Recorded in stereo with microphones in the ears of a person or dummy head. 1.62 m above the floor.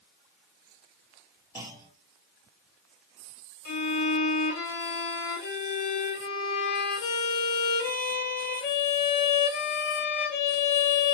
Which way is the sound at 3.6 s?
60° left (ahead or behind).